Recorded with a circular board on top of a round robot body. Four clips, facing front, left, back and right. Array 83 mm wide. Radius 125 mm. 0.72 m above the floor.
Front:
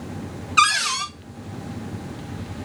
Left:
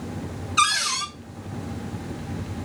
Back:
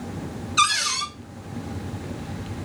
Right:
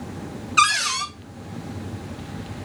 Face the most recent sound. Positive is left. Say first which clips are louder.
# right 3 dB, front 3 dB
turn(degrees=-40)